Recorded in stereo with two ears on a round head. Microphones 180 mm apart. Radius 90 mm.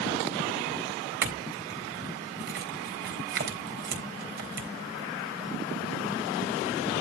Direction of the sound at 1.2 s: 55° right (ahead or behind).